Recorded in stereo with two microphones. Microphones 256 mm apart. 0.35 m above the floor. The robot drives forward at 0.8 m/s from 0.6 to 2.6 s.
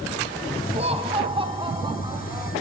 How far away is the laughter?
About 2.5 m.